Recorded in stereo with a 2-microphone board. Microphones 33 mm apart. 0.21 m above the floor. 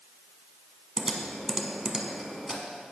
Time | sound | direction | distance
1.0 | typing on a keyboard | 15° right (ahead or behind) | 1.2 m